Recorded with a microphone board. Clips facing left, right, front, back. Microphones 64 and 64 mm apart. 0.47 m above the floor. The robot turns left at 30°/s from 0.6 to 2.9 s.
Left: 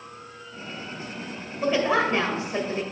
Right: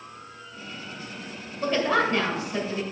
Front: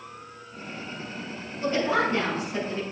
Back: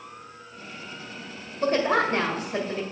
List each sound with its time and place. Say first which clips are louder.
1.6 s a woman speaking: left 1 dB, back 2 dB; 175° left, 1.8 m; by 2.8 s 140° left, 1.8 m